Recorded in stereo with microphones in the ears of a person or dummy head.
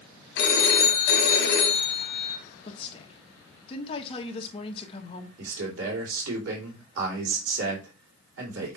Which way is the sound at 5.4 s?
85° right.